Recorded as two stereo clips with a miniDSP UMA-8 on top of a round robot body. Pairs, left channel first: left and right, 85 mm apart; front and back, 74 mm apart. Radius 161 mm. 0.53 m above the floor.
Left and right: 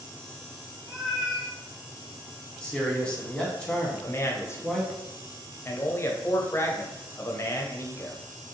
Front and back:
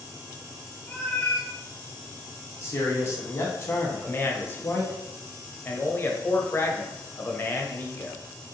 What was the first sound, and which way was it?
A cat meowing, 75° right.